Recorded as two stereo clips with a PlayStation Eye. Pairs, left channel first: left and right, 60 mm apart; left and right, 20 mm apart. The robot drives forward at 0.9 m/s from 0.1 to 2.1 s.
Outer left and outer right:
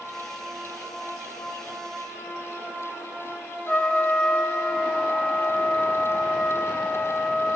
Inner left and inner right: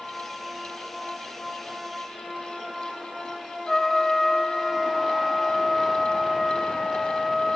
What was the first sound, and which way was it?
A trumpet, 15° left (ahead or behind).